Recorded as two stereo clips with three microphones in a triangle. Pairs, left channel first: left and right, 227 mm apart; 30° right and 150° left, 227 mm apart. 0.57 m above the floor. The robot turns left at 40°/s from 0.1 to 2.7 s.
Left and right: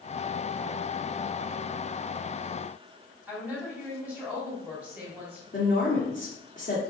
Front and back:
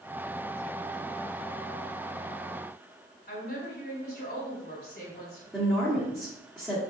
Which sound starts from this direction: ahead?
A woman speaking, at 3.3 s.